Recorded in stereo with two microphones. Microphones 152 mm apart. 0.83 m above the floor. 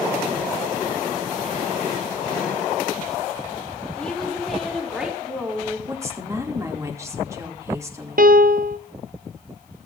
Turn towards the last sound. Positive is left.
turn(degrees=-70)  # may be behind; listen again after turning